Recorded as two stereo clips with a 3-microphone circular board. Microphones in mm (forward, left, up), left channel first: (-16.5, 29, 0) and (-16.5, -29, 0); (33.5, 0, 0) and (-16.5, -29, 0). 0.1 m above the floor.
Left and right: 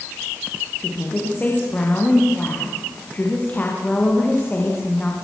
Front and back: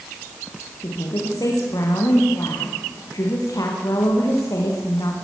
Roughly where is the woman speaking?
Ahead left.